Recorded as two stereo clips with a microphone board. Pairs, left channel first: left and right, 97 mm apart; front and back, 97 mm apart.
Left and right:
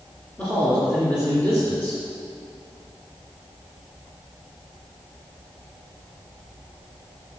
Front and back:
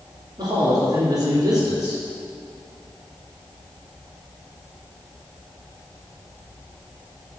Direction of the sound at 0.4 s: 160° left.